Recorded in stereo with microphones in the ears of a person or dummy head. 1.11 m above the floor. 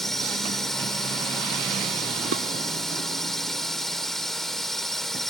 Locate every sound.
0.0 s a drone: 5° left (ahead or behind)
2.3 s dishes clattering: 85° right